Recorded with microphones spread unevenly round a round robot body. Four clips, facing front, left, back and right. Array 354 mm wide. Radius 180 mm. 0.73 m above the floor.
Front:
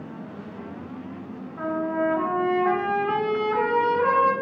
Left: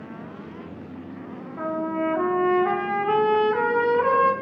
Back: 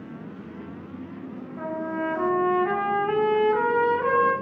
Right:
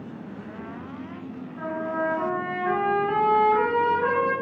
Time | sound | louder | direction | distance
1.6 | a trumpet | left 2 dB, front 4 dB | 90° left | 2 m